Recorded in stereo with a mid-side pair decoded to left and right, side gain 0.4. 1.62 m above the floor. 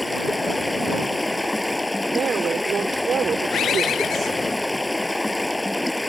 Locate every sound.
0.0 s running water: 10° left
2.1 s a woman speaking: 55° right
3.5 s a bird: 70° left